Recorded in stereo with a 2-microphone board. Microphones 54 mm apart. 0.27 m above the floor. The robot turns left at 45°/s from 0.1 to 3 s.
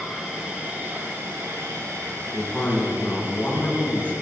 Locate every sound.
0.0 s an insect: 10° right, 3 m; by 4.2 s 140° right, 3 m
2.3 s a man speaking: 175° left, 4 m; by 4.1 s 145° left, 4 m